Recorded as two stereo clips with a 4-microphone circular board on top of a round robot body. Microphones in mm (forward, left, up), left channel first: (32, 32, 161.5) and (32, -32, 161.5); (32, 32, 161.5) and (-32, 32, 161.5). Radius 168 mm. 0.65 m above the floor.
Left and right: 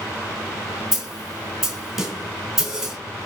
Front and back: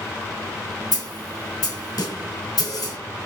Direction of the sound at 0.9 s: 5° right.